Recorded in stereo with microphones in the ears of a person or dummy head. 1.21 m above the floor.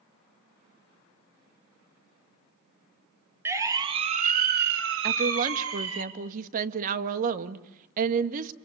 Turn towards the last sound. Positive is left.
turn(degrees=-45)  # may be behind; listen again after turning